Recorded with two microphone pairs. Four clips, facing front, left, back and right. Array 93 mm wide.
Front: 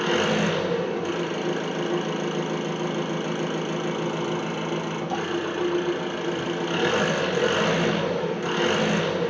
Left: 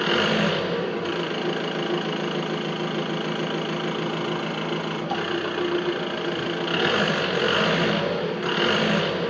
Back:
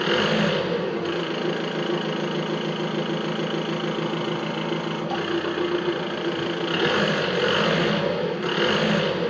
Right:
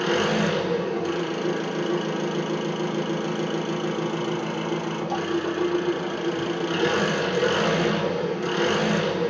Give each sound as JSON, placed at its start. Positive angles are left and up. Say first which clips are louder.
{"t": 0.0, "sound": "an engine running", "louder": "even, back 1 dB", "azimuth_deg": 125, "distance_m": 1.0}